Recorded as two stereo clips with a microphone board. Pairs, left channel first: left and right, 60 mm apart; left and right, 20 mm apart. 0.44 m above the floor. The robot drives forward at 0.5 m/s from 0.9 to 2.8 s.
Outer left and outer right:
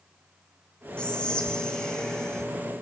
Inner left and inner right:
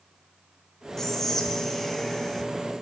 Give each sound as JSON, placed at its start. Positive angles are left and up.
{"t": 1.0, "sound": "whispering", "side_deg": 15, "distance_m": 1.6}